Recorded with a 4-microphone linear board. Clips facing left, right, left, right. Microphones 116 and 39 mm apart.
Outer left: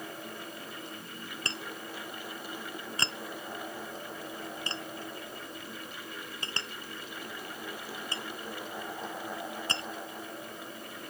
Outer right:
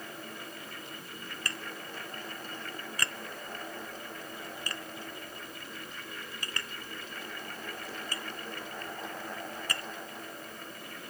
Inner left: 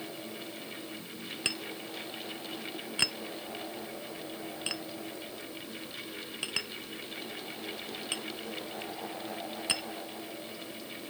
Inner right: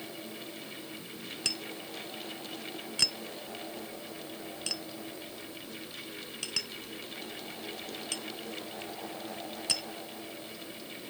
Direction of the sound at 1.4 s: 25° left (ahead or behind).